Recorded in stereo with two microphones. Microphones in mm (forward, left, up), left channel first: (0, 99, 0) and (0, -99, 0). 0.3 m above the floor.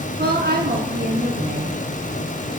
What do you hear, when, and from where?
0.2 s a woman speaking: 55° right (ahead or behind), 4 m